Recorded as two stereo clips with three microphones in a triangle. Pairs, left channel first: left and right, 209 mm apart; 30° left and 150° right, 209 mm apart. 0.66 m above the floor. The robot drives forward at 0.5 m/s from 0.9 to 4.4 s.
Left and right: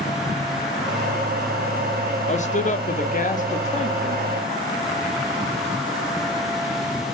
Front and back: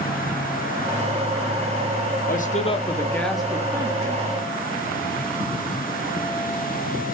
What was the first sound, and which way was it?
A man speaking, 50° left.